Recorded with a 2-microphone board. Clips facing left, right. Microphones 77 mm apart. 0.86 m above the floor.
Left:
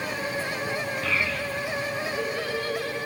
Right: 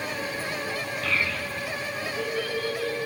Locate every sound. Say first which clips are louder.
1.0 s a child speaking: right 1 dB; centre (ahead or behind), 6.5 m; by 3.1 s 20° right (ahead or behind), 8 m